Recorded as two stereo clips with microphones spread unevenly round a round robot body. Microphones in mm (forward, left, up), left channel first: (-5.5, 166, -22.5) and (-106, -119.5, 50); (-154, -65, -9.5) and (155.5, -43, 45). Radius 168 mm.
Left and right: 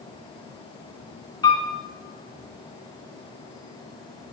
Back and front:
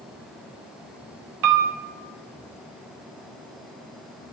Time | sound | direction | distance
1.4 | a piano | 15° right | 0.6 m